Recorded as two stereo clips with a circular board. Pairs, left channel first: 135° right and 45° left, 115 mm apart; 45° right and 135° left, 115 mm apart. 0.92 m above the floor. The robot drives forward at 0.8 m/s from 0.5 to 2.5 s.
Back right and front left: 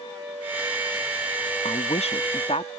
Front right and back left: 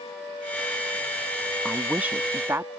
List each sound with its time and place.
1.6 s a woman speaking: 135° right; by 2.7 s 160° right